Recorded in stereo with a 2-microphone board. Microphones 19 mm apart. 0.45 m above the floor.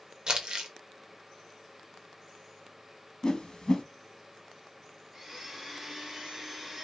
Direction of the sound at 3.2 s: 55° left (ahead or behind).